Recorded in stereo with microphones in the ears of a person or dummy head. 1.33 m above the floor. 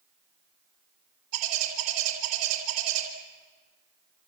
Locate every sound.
1.3 s a bird: 85° right, 4.5 m